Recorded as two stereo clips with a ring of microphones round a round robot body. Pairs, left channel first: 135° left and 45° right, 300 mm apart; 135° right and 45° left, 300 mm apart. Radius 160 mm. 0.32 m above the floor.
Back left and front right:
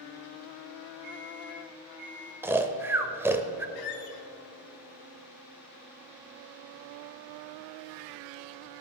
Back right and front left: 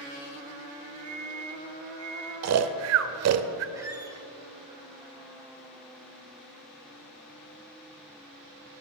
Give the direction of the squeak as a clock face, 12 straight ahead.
8 o'clock.